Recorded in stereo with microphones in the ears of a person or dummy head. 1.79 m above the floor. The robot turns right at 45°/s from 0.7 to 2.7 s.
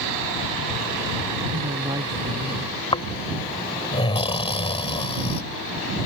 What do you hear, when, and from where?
1.5 s a woman speaking: 50° right; by 2.7 s 5° left
2.9 s snoring: 25° left (ahead or behind)